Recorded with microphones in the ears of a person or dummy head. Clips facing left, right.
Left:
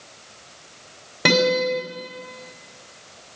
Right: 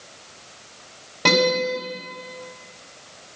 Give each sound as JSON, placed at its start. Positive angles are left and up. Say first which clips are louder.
{"t": 1.2, "sound": "a guitar", "louder": "left 1 dB", "side_deg": 15, "distance_m": 6.0}